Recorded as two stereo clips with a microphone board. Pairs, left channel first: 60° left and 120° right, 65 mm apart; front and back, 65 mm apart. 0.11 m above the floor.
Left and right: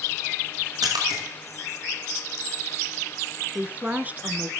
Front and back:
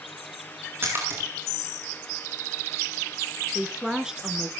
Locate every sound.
0.8 s a splash: 125° right, 8.5 m
3.5 s a woman speaking: 115° right, 1.2 m